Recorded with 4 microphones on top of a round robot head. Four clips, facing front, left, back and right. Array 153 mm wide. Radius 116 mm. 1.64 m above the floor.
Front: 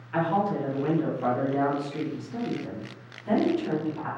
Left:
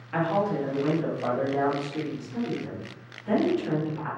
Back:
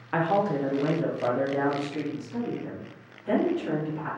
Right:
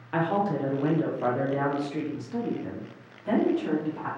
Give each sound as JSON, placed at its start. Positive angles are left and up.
{"t": 0.1, "sound": "a woman speaking", "azimuth_deg": -165, "distance_m": 0.9}